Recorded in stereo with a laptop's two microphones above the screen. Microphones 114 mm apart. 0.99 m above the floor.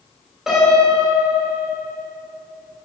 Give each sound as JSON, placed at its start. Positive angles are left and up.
{"t": 0.5, "sound": "a piano", "side_deg": -5, "distance_m": 3.5}